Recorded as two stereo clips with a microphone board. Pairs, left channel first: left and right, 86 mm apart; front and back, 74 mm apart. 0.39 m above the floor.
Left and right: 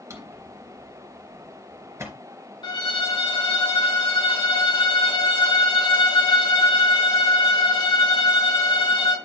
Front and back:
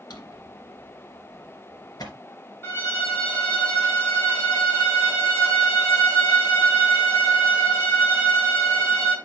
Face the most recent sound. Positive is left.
turn(degrees=60)